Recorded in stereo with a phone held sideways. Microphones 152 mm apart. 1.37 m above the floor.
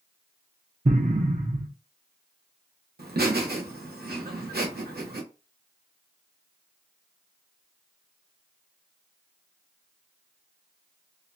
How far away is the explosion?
About 0.6 m.